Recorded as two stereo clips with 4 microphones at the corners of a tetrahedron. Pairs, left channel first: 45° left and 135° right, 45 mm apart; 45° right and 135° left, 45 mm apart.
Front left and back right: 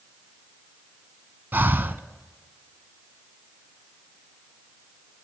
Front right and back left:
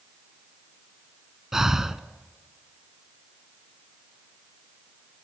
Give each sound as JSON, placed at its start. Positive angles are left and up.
{"t": 1.5, "sound": "breathing", "azimuth_deg": -150, "distance_m": 0.8}